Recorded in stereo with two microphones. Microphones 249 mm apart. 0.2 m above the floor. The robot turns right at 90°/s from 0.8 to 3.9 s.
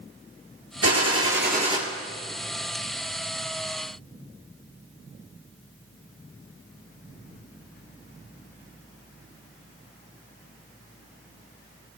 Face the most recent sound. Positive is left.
turn(degrees=175)